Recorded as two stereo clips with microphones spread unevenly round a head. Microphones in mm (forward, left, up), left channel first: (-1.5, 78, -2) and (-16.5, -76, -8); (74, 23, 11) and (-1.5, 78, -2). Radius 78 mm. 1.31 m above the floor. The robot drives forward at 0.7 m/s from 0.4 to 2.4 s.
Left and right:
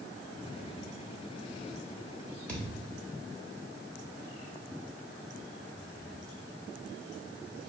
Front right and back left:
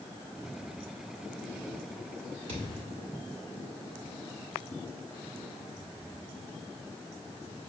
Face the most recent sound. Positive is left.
turn(degrees=160)